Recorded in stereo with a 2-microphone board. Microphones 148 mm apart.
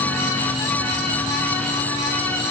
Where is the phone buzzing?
I don't hear a phone buzzing.